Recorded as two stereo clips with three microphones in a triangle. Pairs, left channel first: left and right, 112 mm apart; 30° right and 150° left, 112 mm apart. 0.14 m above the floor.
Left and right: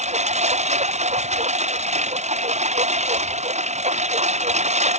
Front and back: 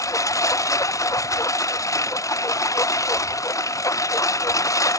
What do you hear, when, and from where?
0.0 s a lawn mower: 90° right